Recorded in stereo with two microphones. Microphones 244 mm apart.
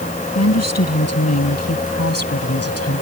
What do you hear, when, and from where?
0.3 s a woman speaking: 90° left; by 3.0 s 65° left (ahead or behind)